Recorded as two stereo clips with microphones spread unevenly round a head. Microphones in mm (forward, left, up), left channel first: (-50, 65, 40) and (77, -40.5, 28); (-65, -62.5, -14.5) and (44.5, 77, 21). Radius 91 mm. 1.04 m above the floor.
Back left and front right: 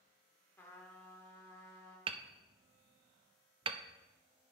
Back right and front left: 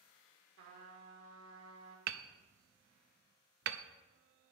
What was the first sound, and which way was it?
A trumpet, 65° left.